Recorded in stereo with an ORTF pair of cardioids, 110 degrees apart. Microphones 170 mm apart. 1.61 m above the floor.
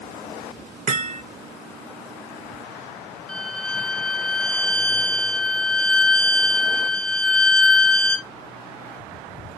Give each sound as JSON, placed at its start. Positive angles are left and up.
{"t": 0.9, "sound": "hammering", "azimuth_deg": -55, "distance_m": 0.9}
{"t": 3.3, "sound": "a violin", "azimuth_deg": 5, "distance_m": 0.9}